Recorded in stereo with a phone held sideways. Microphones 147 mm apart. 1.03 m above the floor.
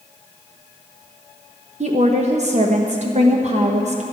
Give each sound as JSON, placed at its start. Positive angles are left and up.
{"t": 1.8, "sound": "a woman speaking", "side_deg": -50, "distance_m": 1.0}